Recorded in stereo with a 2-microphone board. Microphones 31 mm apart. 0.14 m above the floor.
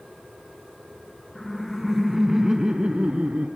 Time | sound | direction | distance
1.4 | laughter | 15° left (ahead or behind) | 1.4 m